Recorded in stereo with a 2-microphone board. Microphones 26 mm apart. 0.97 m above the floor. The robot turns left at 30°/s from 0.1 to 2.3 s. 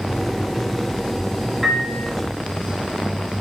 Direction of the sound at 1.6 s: 5° right (ahead or behind).